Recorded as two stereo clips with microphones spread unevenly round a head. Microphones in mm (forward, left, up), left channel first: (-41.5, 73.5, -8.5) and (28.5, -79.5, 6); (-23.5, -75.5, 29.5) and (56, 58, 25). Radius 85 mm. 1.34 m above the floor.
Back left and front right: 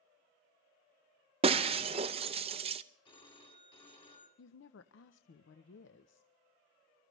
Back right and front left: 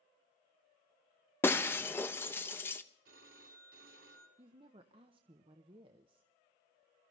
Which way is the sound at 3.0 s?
50° left.